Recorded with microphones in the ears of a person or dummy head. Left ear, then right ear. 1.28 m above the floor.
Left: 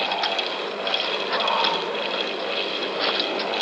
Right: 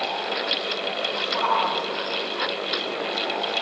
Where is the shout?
20° right (ahead or behind), 3.5 m.